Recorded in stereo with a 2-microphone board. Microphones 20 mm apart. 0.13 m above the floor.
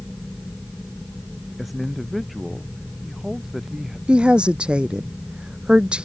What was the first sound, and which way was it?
A man speaking, 5° right (ahead or behind).